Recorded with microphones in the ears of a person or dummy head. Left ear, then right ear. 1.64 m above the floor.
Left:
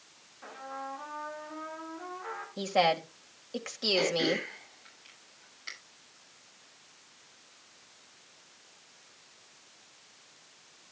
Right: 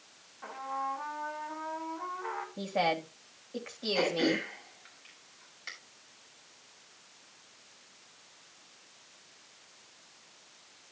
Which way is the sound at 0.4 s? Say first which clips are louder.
Right 5 dB; 15° right (ahead or behind).